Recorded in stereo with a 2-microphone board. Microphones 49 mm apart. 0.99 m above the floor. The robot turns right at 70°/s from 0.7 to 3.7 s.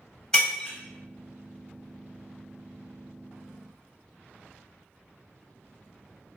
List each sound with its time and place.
0.3 s breaking glass: 15° left (ahead or behind), 1.2 m; by 0.8 s 10° left (ahead or behind), 1.2 m